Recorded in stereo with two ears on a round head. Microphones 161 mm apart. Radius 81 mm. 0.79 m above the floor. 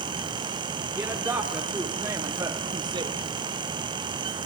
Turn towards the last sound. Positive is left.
turn(degrees=-30)  # may be behind; listen again after turning